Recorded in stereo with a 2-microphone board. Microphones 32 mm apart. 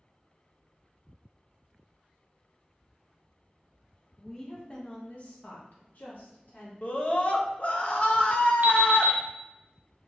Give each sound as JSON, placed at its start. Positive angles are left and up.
{"t": 4.2, "sound": "a woman speaking", "side_deg": 10, "distance_m": 0.9}
{"t": 6.8, "sound": "a scream", "side_deg": 45, "distance_m": 0.8}
{"t": 8.6, "sound": "an alarm clock", "side_deg": -65, "distance_m": 0.8}